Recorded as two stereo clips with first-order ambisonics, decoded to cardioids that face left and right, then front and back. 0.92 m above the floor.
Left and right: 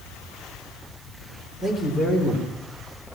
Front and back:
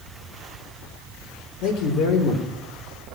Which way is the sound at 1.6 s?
10° left.